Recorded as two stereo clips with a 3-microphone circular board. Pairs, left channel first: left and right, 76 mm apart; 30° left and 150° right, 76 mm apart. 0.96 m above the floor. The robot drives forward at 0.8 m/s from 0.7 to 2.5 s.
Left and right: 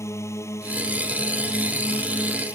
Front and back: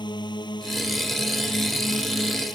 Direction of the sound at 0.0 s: 35° left.